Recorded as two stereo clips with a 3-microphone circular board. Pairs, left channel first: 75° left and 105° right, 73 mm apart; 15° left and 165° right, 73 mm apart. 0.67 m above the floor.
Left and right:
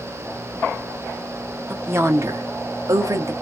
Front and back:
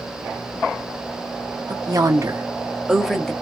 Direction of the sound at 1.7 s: 160° right.